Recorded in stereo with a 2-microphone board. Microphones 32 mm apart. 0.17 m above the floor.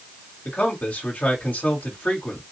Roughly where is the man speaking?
Left.